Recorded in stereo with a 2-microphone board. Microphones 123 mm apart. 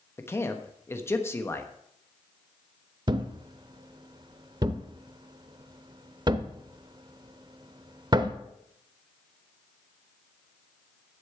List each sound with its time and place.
0.2 s a man speaking: 20° left (ahead or behind), 1.1 m
3.1 s a thud: 35° right (ahead or behind), 0.6 m